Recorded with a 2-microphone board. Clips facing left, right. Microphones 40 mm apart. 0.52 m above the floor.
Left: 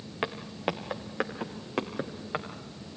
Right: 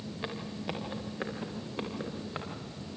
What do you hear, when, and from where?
0.2 s footsteps: 60° left (ahead or behind), 3 m; by 2.5 s 70° left (ahead or behind), 4.5 m